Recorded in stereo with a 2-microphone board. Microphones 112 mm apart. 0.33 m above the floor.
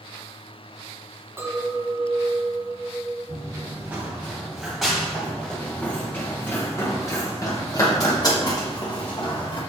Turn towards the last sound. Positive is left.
turn(degrees=45)  # may be behind; listen again after turning